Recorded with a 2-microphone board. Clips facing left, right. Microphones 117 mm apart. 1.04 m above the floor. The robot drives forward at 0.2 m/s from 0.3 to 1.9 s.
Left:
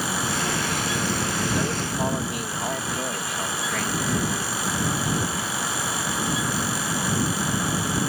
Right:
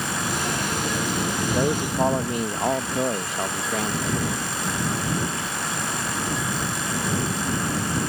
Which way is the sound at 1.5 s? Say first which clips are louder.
Right 4 dB; 30° right (ahead or behind).